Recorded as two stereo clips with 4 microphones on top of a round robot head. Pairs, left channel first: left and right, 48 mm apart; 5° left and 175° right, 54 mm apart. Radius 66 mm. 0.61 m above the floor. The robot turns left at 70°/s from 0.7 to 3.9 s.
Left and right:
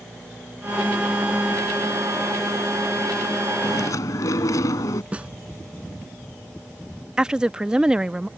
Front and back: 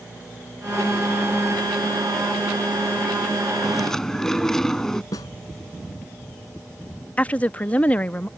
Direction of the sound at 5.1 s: 25° right.